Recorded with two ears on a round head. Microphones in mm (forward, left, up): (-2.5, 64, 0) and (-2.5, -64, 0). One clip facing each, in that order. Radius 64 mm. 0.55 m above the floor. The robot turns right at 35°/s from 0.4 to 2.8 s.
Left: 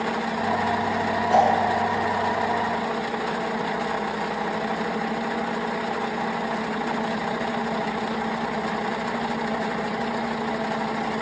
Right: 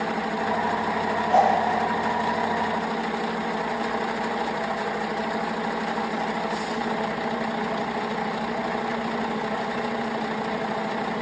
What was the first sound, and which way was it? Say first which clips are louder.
A whoosh: even; 50° left (ahead or behind).